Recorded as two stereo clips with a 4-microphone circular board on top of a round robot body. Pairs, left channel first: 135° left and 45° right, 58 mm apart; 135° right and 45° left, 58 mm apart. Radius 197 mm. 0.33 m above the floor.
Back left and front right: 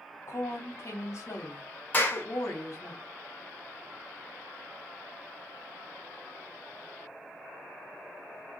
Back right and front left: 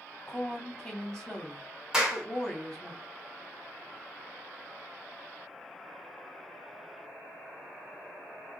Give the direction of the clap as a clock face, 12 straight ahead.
8 o'clock.